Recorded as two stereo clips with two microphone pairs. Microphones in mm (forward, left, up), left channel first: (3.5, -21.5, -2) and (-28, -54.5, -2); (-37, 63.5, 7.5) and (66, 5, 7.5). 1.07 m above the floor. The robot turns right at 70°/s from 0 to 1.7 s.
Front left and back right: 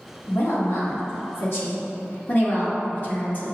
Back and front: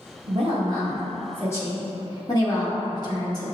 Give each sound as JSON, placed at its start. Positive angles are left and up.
{"t": 0.3, "sound": "a woman speaking", "azimuth_deg": -5, "distance_m": 1.4}